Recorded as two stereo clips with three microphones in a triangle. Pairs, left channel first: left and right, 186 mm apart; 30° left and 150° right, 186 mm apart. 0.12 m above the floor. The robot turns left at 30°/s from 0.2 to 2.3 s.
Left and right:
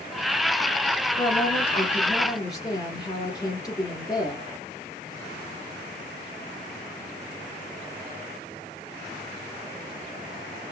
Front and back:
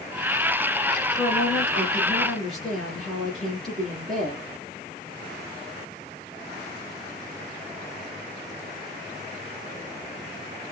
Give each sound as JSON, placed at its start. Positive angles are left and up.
{"t": 1.2, "sound": "a woman speaking", "azimuth_deg": 155, "distance_m": 1.7}